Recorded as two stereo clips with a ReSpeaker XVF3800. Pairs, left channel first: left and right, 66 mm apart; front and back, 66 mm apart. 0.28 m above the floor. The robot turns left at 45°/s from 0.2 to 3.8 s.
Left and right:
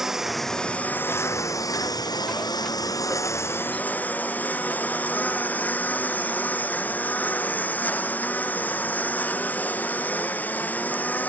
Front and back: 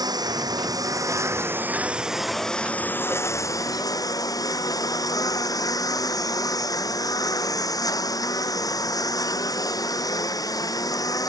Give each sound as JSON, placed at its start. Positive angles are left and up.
{"t": 0.0, "sound": "a lawn mower", "azimuth_deg": -175}